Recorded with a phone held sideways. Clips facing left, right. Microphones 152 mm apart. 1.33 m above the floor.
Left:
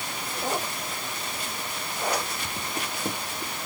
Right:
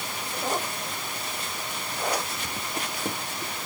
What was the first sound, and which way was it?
Only background noise.